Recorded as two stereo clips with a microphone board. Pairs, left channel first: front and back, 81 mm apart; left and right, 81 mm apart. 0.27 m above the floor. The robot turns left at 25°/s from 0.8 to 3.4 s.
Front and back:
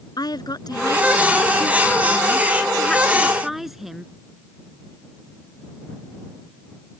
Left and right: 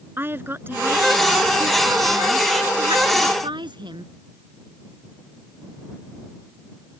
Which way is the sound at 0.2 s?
30° right.